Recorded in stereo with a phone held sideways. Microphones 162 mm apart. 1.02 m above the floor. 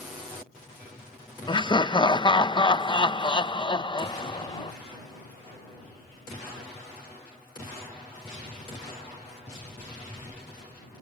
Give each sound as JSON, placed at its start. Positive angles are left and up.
{"t": 1.5, "sound": "laughter", "side_deg": 30}